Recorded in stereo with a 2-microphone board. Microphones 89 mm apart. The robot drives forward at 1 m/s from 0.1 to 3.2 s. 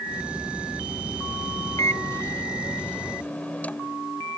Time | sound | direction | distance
1.8 | a microwave | 40° left (ahead or behind) | ?